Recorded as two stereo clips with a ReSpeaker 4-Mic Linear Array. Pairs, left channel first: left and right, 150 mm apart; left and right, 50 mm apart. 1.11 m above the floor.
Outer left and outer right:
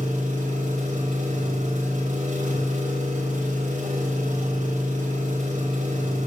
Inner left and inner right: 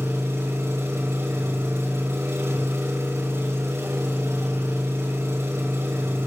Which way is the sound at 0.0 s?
60° right (ahead or behind).